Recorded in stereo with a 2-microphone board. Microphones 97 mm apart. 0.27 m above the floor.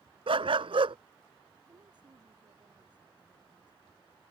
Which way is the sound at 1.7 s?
50° right (ahead or behind).